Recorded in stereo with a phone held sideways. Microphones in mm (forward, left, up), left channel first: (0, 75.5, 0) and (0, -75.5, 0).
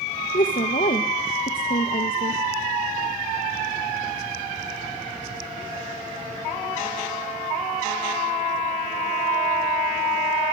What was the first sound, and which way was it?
A woman speaking, 65° left (ahead or behind).